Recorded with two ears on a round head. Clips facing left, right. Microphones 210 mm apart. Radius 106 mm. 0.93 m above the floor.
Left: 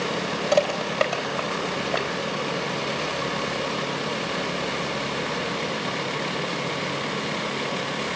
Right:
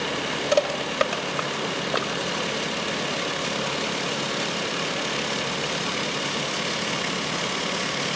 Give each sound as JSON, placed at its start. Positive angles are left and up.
{"t": 0.5, "sound": "crushing", "side_deg": -20, "distance_m": 3.5}